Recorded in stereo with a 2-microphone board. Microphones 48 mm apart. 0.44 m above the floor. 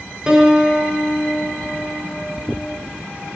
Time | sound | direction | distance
0.3 | a piano | 15° right (ahead or behind) | 7 m